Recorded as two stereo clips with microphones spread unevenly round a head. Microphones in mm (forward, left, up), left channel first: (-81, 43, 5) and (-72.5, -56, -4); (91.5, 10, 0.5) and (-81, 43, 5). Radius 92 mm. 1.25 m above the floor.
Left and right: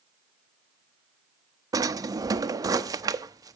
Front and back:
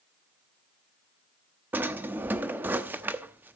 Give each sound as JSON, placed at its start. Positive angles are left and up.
{"t": 1.7, "sound": "a drawer", "azimuth_deg": -120, "distance_m": 0.8}